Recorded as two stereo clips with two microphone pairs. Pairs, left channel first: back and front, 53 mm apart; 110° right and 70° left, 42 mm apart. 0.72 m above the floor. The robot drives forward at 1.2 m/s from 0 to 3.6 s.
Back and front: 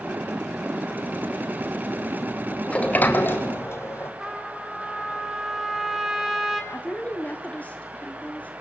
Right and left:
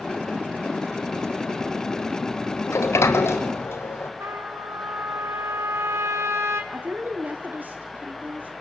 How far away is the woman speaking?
About 1.8 m.